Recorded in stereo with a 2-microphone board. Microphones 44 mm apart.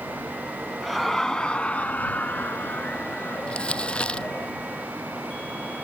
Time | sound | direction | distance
0.8 | laughter | centre (ahead or behind) | ?
3.5 | crumpling | 30° left (ahead or behind) | ?